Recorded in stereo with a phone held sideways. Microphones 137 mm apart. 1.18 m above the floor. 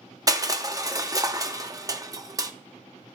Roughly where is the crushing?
Right.